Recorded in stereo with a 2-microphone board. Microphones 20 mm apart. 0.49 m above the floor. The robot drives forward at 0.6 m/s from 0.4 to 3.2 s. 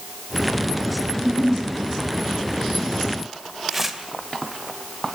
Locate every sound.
1.1 s a giggle: centre (ahead or behind), 4.5 m; by 1.6 s 5° left (ahead or behind), 4.5 m
3.7 s tearing paper: 15° right (ahead or behind), 2.5 m